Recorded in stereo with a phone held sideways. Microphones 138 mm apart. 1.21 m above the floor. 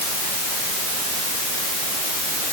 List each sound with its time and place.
Only background noise.